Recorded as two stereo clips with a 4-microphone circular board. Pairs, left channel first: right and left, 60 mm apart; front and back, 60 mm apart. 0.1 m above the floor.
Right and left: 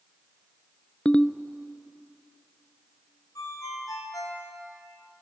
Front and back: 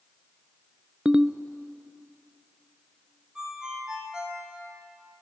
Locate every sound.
1.1 s a ringtone: 130° right, 0.5 m
3.4 s a ringtone: 105° right, 3.5 m